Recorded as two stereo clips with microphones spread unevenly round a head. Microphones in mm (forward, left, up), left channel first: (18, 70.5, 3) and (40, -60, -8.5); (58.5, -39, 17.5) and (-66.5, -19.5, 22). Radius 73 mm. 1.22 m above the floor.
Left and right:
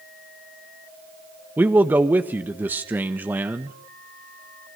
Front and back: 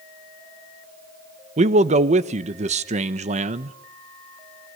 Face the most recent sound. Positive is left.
turn(degrees=-160)